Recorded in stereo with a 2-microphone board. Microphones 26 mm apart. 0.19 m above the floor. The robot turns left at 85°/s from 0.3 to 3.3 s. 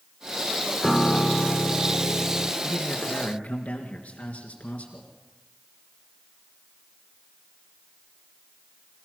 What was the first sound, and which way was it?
A piano, 175° left.